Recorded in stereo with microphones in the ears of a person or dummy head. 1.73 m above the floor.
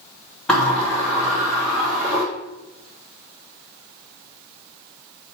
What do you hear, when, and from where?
0.5 s a sliding door: centre (ahead or behind), 3 m